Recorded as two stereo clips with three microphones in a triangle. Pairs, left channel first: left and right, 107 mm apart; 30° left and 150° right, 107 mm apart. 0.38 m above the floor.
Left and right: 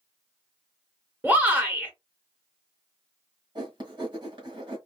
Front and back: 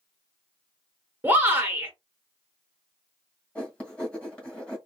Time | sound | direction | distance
1.2 | a shout | 125° right | 1.4 m
3.5 | writing | 50° right | 1.8 m